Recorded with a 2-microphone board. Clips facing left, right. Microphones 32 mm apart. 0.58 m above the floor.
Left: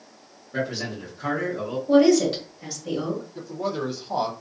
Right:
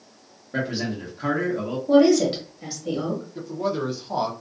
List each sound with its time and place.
0.5 s a man speaking: 25° right (ahead or behind), 1.1 m
1.9 s a woman speaking: 15° right (ahead or behind), 1.3 m
3.4 s a man speaking: 5° right (ahead or behind), 0.7 m